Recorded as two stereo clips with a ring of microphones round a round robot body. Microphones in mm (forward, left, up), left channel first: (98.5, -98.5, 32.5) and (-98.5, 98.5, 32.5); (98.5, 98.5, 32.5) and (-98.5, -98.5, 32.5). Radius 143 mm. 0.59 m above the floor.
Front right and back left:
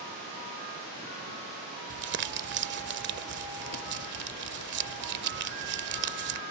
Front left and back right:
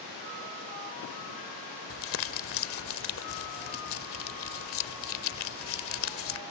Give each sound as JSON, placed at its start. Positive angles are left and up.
{"t": 1.9, "sound": "crumpling", "azimuth_deg": 85}